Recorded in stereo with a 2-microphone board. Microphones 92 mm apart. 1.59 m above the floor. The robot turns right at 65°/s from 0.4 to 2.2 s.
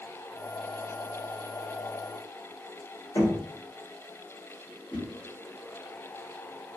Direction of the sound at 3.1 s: 45° left (ahead or behind).